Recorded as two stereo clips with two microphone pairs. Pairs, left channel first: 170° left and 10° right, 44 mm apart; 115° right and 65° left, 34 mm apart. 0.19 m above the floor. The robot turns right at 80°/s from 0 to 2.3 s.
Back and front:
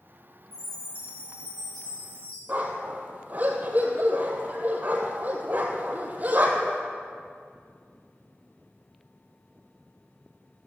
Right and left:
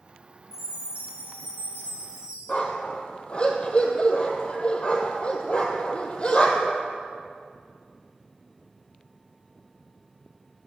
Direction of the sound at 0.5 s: 10° right.